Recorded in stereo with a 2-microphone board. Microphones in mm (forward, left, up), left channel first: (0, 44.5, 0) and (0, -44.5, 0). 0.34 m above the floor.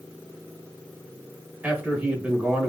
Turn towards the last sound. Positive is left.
turn(degrees=-20)  # may be behind; listen again after turning